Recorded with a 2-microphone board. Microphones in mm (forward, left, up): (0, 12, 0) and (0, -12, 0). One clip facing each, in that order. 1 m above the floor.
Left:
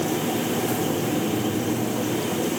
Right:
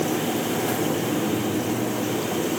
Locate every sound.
Only background noise.